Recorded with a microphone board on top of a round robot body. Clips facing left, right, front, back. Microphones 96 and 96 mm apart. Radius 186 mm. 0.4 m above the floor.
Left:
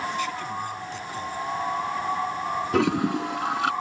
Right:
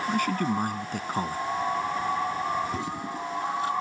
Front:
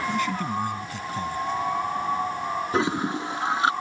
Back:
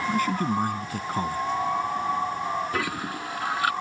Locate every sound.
0.1 s a man speaking: 130° right
2.7 s a toilet flushing: 65° left